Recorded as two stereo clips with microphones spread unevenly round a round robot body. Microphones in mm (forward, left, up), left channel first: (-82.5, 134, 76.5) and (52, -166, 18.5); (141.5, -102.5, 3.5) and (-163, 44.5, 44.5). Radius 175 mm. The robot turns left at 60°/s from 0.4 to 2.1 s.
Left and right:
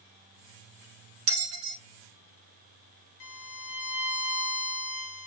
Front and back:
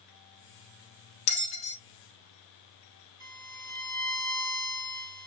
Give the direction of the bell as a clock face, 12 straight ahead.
1 o'clock.